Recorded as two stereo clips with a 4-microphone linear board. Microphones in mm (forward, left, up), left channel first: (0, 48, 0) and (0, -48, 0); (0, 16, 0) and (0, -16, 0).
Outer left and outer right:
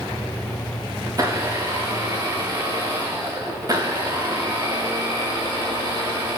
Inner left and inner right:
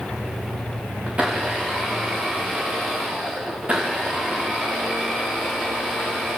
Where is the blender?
35° right (ahead or behind), 6.5 m.